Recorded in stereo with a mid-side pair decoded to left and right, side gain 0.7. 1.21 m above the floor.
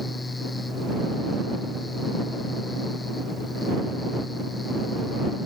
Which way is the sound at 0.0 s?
15° left.